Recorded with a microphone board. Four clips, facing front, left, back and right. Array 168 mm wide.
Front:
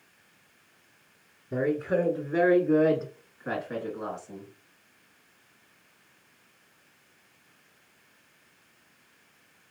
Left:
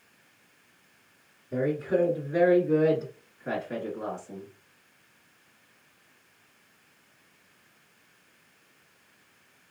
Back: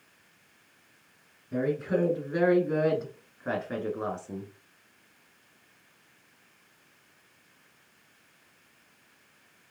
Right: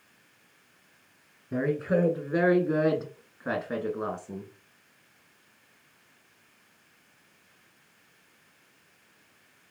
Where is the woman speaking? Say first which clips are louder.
Even, front 2 dB; 50° right, 1.9 m; by 4.5 s 130° right, 1.7 m.